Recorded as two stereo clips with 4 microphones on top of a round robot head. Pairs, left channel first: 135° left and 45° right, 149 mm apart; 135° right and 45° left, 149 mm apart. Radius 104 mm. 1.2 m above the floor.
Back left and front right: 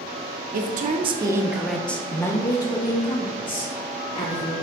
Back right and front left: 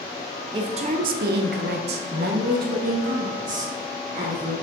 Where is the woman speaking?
20° right, 0.7 m; by 4.5 s 85° left, 2.5 m.